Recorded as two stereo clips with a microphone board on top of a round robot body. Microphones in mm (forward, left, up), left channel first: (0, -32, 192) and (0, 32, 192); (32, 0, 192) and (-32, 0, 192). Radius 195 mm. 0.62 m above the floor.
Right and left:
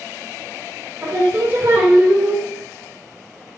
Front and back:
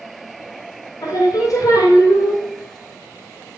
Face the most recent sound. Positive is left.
turn(degrees=35)